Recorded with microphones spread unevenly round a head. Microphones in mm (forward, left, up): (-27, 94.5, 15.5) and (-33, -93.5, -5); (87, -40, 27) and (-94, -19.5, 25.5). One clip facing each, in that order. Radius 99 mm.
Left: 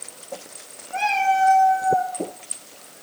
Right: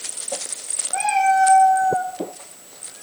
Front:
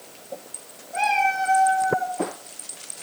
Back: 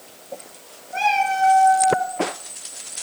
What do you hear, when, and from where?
0.9 s a cat meowing: 145° left, 5.5 m